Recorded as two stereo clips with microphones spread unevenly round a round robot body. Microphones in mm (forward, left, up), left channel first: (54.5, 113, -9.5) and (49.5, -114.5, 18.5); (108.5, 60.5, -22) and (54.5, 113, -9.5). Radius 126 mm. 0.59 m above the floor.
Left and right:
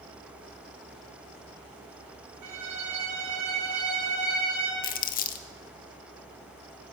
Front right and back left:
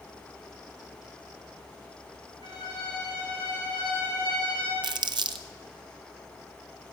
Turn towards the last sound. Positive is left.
turn(degrees=130)